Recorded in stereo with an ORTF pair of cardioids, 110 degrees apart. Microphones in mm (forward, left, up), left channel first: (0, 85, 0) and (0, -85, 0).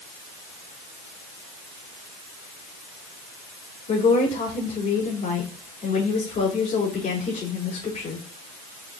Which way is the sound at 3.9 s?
45° left.